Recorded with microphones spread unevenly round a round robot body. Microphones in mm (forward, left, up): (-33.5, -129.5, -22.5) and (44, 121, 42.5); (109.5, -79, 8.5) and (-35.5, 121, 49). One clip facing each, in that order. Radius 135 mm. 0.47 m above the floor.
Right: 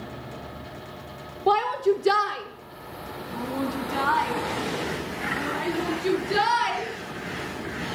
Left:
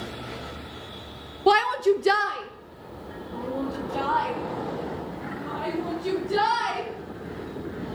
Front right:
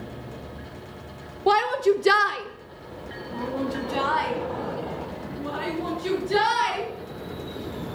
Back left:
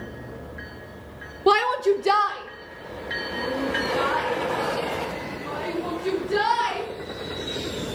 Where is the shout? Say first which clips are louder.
Left 2 dB, back left 1 dB; 60° left, 1.1 m; by 6.9 s 70° right, 8 m.